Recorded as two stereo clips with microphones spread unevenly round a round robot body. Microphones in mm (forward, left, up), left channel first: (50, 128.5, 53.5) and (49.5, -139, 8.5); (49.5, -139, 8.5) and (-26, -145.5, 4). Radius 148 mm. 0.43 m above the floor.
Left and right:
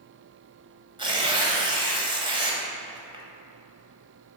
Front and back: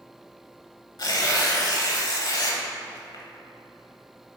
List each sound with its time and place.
1.0 s tearing paper: 20° right, 1.7 m